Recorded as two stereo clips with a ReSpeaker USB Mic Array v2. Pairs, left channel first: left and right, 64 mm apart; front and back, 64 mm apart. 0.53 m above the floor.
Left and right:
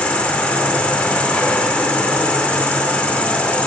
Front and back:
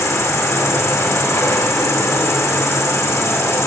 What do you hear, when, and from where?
0.0 s an insect: 25° left, 1.5 m